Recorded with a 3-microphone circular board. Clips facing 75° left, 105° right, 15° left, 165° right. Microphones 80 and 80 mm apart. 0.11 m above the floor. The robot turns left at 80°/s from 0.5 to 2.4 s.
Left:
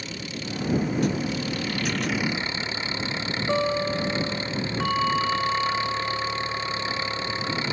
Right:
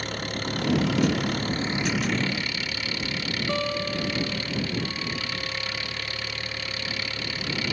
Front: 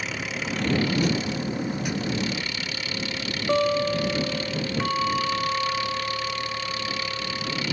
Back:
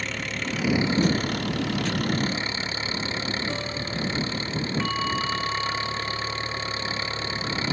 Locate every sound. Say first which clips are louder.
0.0 s an engine running: right 4 dB, even; 70° right; by 7.7 s 135° left
3.5 s a guitar: left 5 dB, front 10 dB; 5° left
4.8 s a bell: left 9 dB, front 5 dB; 90° left